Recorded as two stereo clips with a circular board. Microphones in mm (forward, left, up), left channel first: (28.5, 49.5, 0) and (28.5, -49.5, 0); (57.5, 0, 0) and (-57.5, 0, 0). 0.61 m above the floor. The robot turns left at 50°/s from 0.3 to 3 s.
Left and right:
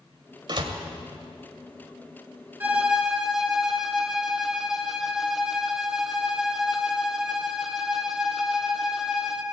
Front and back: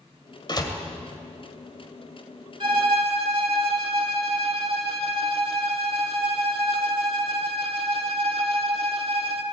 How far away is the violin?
About 1.7 m.